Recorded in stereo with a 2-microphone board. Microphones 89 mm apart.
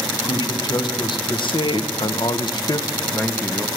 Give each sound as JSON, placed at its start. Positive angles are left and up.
{"t": 0.1, "sound": "a man speaking", "side_deg": 50, "distance_m": 1.4}